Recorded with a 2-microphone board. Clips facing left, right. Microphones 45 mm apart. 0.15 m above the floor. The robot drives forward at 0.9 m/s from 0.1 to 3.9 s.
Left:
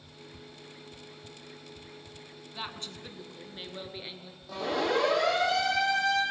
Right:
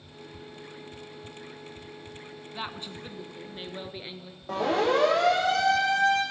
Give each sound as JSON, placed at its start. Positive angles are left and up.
{"t": 2.5, "sound": "a woman speaking", "side_deg": -15, "distance_m": 1.0}
{"t": 4.5, "sound": "a siren", "side_deg": -45, "distance_m": 7.5}